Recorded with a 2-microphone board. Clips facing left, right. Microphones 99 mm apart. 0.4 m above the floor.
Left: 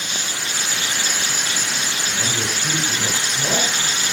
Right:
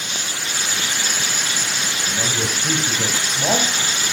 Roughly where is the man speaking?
Right.